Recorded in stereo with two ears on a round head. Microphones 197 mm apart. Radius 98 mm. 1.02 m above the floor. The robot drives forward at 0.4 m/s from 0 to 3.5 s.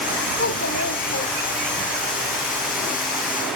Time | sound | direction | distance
0.4 | a child speaking | 50° left (ahead or behind) | 2.5 m